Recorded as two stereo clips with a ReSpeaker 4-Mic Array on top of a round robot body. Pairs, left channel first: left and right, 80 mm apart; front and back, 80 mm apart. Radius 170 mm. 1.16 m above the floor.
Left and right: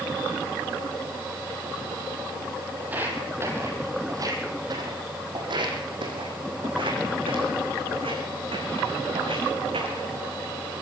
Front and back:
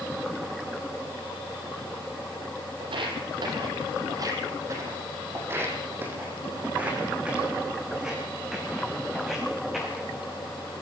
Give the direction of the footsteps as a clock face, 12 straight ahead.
5 o'clock.